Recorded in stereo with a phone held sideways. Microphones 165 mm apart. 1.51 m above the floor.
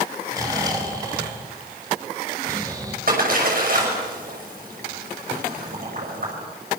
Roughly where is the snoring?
Right.